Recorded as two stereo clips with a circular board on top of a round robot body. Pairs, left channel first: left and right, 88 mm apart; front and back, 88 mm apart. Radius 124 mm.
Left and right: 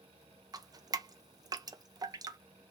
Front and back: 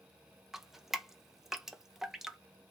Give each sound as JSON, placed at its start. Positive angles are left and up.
{"t": 0.5, "sound": "dripping", "azimuth_deg": -95, "distance_m": 0.7}